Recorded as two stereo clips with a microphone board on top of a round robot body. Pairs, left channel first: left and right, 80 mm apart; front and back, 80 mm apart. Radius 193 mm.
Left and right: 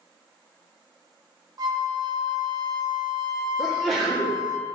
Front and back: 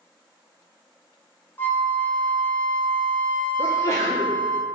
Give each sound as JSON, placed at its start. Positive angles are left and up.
{"t": 1.6, "sound": "a flute", "azimuth_deg": -65, "distance_m": 1.1}
{"t": 3.6, "sound": "a sneeze", "azimuth_deg": -5, "distance_m": 1.2}